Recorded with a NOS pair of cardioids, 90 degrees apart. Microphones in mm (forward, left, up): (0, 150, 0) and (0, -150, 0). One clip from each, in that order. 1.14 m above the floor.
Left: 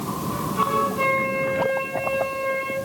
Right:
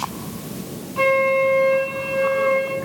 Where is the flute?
60° right, 1.4 m.